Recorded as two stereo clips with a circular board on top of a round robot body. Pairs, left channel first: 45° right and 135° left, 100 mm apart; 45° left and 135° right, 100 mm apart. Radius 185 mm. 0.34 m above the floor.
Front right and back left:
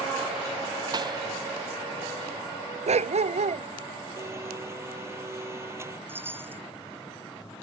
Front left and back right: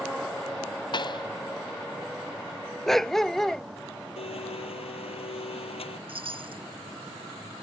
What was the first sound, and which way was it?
A pop, 90° left.